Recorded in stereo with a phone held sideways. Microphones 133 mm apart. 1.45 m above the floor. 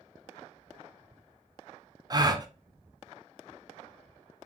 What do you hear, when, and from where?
2.1 s a gasp: 30° right (ahead or behind), 0.5 m